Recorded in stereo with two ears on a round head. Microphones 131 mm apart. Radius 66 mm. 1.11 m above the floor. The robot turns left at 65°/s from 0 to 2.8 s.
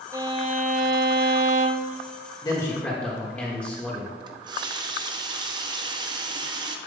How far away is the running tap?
About 0.7 m.